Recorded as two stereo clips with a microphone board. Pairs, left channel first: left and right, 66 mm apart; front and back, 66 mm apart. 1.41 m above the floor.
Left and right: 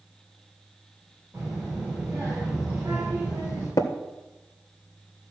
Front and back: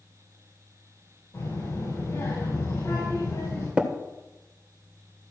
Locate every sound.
1.3 s a child speaking: 30° right, 5 m
3.8 s tapping: 110° left, 1.2 m